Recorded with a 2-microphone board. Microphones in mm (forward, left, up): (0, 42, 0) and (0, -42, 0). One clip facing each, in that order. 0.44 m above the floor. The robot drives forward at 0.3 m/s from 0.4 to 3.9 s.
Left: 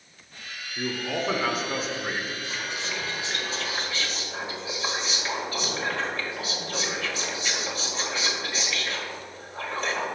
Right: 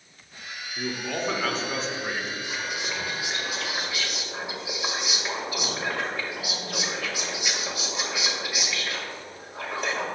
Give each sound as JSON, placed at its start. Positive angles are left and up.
{"t": 0.8, "sound": "a man speaking", "side_deg": 5, "distance_m": 0.8}
{"t": 2.4, "sound": "whispering", "side_deg": -15, "distance_m": 1.7}